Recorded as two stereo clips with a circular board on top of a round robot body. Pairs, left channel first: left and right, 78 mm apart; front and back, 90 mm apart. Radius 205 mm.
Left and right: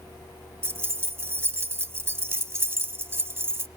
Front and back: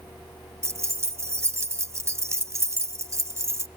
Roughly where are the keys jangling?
Behind right.